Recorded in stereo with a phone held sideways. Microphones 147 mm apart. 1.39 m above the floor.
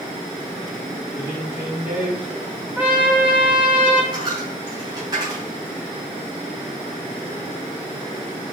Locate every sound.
1.1 s a man speaking: 20° right (ahead or behind), 3.5 m; by 2.7 s 5° right (ahead or behind), 3 m
2.8 s a trumpet: 10° right (ahead or behind), 1.6 m
4.1 s a dropped coin: 30° right (ahead or behind), 3.5 m